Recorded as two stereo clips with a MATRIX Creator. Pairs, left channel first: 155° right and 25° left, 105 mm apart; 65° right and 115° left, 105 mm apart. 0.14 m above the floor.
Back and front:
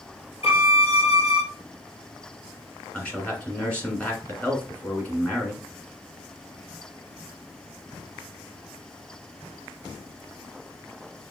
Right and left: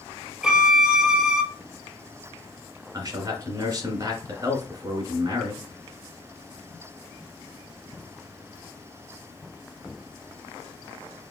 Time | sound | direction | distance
0.4 | a violin | 170° right | 0.9 m
2.9 | a man speaking | 135° left | 1.8 m